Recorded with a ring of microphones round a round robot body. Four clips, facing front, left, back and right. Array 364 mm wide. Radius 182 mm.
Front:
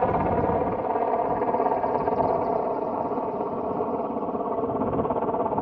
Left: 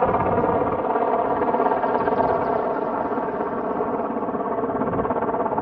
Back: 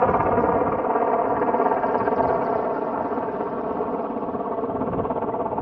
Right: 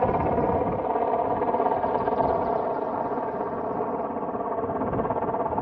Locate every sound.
0.0 s a helicopter: 145° left; by 5.6 s 90° left